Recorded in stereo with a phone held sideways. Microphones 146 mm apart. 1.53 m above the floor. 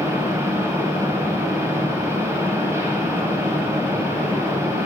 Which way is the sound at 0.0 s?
20° right (ahead or behind).